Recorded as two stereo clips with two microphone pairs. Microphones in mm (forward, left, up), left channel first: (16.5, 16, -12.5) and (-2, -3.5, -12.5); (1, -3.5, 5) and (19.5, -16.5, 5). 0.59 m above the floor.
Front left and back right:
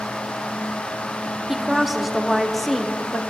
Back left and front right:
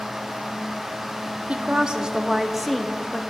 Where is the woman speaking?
55° right, 0.8 m; by 3.2 s 110° left, 0.7 m.